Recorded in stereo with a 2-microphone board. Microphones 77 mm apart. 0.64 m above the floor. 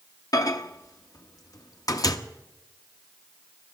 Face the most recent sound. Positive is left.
turn(degrees=55)  # may be behind; listen again after turning